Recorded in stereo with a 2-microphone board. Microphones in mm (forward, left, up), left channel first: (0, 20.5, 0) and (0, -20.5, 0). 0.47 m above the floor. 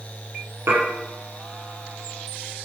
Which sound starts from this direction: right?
Dishes clattering, at 0.7 s.